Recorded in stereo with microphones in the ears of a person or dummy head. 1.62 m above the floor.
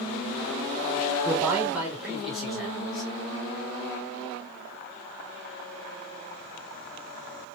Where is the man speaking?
15° right (ahead or behind), 1.2 m; by 3.1 s centre (ahead or behind), 2 m.